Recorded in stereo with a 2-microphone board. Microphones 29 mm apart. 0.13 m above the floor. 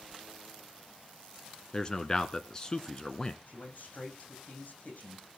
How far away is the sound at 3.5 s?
About 7.5 m.